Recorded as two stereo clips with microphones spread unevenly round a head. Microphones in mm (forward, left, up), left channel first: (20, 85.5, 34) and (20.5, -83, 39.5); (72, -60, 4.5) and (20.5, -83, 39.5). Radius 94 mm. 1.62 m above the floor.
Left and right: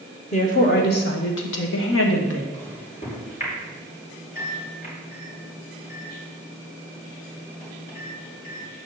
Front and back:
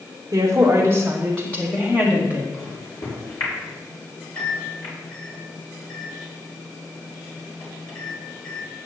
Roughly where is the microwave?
Ahead left.